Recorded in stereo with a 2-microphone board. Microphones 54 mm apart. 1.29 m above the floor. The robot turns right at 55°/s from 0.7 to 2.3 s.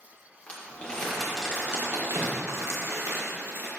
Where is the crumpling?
25° left (ahead or behind), 1.7 m; by 3.7 s 60° right (ahead or behind), 1.7 m.